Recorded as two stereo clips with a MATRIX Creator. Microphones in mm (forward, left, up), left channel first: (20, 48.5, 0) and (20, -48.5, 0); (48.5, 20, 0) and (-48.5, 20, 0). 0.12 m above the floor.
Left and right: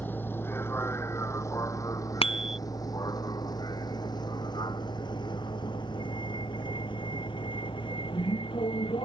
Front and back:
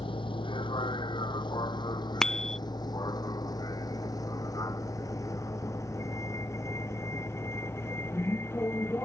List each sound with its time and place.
0.0 s a vehicle: 20° left; by 9.1 s 65° left
2.2 s a bicycle bell: 85° left